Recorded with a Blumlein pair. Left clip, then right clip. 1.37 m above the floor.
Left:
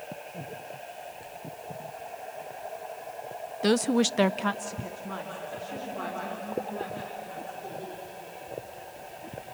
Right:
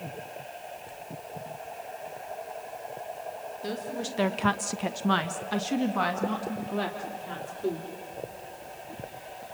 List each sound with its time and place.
3.6 s a woman speaking: 60° left, 0.9 m; by 7.9 s 65° right, 4 m